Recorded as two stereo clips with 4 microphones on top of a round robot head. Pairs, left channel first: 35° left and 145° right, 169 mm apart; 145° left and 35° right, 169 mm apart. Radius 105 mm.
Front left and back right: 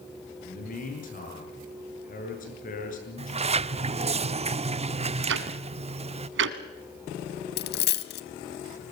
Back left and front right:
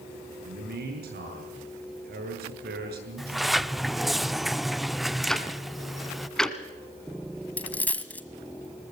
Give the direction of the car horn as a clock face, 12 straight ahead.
I don't hear a car horn.